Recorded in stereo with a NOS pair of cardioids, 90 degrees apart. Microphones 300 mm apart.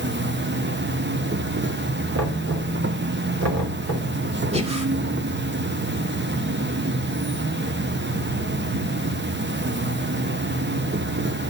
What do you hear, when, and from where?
0.0 s an insect: 35° right, 1.0 m
2.1 s knocking: 60° right, 4 m
4.5 s breathing: 20° right, 2.5 m